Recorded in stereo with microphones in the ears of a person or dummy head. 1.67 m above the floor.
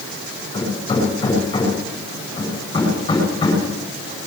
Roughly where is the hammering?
Left.